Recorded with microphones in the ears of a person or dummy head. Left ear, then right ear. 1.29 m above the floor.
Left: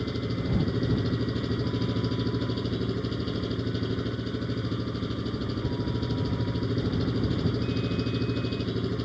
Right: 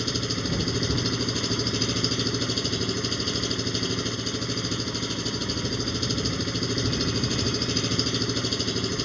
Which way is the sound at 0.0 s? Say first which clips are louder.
Right 5 dB; 85° right.